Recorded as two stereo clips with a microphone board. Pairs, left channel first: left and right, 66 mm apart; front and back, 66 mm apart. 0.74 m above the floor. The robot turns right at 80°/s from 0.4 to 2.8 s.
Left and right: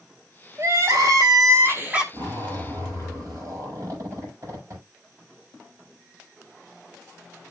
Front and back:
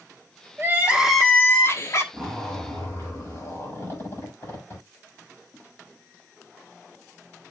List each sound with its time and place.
0.6 s crying: 135° right, 1.5 m; by 2.0 s 20° right, 1.5 m
2.1 s a zipper: 100° right, 4.5 m; by 4.8 s 45° right, 4.5 m